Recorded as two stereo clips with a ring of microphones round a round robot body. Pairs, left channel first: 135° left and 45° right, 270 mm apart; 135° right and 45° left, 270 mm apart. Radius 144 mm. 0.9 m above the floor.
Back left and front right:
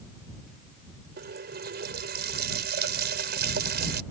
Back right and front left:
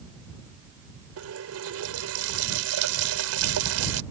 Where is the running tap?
10° left.